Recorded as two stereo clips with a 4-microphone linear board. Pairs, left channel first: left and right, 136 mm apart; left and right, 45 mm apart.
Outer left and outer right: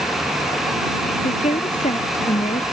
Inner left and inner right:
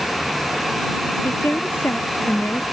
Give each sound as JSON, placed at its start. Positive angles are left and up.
{"t": 1.2, "sound": "a woman speaking", "side_deg": 60}